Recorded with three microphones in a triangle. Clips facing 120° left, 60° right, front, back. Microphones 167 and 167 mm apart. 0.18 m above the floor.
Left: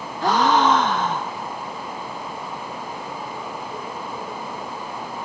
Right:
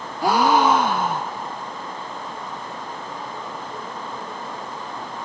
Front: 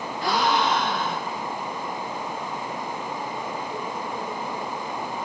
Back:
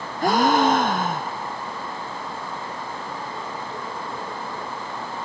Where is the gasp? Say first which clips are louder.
Right 1 dB, back 5 dB; 140° right, 1.4 m.